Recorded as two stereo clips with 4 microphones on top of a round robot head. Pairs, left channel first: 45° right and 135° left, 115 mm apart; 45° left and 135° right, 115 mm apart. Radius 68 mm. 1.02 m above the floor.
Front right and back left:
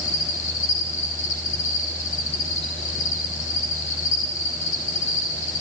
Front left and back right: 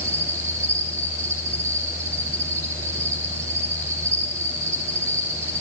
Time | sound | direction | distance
0.0 | an insect | 65° right | 7.5 m